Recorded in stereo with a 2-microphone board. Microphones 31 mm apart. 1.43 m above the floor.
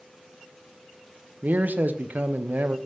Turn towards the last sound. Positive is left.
turn(degrees=-80)